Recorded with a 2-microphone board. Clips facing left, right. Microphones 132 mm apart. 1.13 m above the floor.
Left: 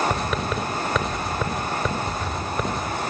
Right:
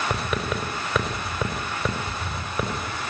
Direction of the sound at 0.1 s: 5° right (ahead or behind).